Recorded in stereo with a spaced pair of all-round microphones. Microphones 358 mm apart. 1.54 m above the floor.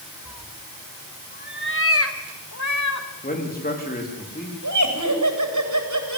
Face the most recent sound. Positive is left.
turn(degrees=-55)  # may be behind; listen again after turning